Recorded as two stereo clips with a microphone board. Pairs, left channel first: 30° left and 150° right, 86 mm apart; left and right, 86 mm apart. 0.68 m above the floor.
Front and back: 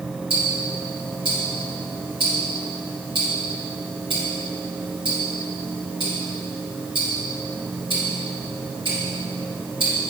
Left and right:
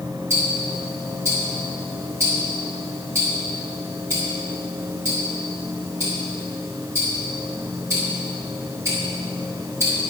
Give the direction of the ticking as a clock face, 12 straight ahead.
5 o'clock.